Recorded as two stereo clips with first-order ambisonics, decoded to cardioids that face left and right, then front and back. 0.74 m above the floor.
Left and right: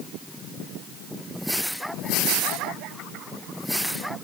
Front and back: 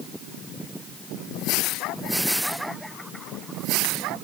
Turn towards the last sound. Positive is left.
No sound to turn to.